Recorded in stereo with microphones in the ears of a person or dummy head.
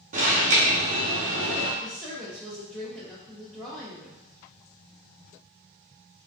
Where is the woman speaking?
5° left (ahead or behind), 0.6 m.